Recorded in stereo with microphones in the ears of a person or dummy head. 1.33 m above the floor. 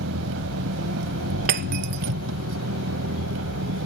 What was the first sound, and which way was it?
An engine running, 85° right.